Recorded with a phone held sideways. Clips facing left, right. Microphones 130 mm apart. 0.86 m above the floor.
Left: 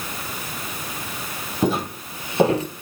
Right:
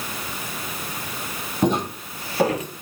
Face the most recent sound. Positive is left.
turn(degrees=35)  # may be behind; listen again after turning